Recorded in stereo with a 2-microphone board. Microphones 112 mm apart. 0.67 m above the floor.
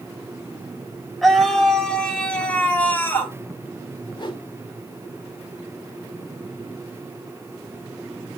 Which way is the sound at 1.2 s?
Centre (ahead or behind).